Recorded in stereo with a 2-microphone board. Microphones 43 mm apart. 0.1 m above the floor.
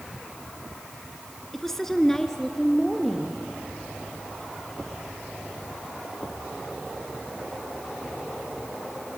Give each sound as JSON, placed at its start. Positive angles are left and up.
{"t": 1.5, "sound": "a woman speaking", "side_deg": 5, "distance_m": 1.1}